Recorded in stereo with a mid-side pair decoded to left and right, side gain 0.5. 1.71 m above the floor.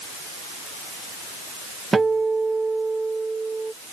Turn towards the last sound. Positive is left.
turn(degrees=-25)